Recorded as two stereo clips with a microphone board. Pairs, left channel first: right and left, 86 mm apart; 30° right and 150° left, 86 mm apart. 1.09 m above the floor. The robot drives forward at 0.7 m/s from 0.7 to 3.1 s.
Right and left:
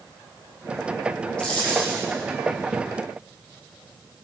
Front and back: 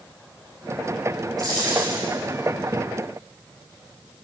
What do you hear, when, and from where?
1.4 s a dropped coin: 170° right, 7 m